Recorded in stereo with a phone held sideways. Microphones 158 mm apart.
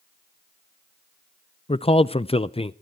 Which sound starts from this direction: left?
A man speaking, at 1.7 s.